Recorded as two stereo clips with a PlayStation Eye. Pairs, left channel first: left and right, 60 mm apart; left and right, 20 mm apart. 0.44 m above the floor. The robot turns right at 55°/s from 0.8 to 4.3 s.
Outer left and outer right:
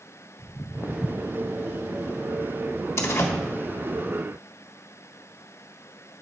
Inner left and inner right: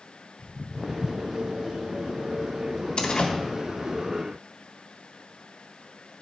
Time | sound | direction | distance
0.4 | footsteps | 70° left (ahead or behind) | 1.2 m
3.0 | a door slam | 50° left (ahead or behind) | 1.3 m